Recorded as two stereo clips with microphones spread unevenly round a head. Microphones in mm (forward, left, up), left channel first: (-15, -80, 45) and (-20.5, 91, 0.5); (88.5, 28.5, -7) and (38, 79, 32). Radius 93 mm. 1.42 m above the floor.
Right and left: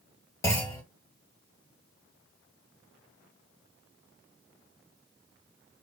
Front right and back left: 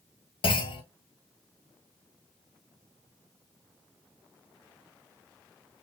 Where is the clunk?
40° right, 1.4 m.